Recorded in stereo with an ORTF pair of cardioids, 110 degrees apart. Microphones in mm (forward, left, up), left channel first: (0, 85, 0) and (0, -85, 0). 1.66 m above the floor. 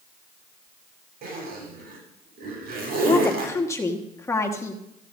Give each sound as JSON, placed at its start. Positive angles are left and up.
{"t": 1.2, "sound": "a zipper", "azimuth_deg": -65, "distance_m": 8.5}
{"t": 3.0, "sound": "a woman speaking", "azimuth_deg": 20, "distance_m": 1.6}